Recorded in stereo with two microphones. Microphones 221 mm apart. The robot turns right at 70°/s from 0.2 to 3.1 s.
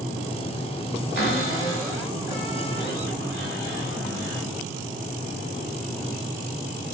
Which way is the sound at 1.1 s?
115° left.